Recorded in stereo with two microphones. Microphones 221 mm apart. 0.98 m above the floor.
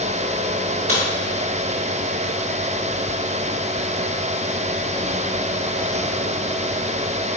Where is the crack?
85° right, 1.7 m.